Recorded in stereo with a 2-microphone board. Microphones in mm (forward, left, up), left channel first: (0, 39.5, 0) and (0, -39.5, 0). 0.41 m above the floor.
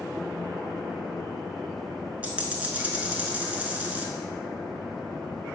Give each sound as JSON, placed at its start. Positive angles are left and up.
{"t": 2.2, "sound": "a dropped coin", "side_deg": -20, "distance_m": 0.6}